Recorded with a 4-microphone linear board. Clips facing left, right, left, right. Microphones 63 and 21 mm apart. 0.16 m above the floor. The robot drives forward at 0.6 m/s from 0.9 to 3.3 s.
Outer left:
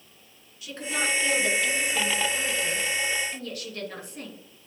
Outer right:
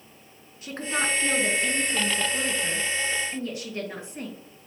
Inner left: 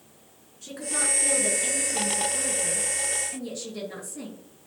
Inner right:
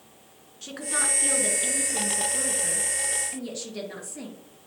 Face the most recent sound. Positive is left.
turn(degrees=-20)  # may be behind; listen again after turning